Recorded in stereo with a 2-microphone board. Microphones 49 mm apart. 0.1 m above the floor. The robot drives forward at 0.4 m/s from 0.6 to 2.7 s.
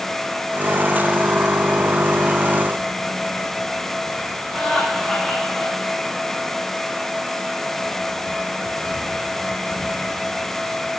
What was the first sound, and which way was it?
Laughter, centre (ahead or behind).